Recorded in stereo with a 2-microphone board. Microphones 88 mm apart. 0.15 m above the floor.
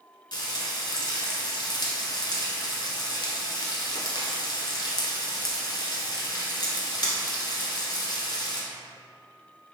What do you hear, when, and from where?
0.3 s frying: 55° left (ahead or behind), 0.8 m